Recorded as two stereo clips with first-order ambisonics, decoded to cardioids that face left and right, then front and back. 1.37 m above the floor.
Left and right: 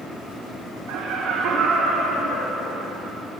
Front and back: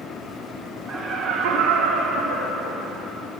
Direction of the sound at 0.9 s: 110° right.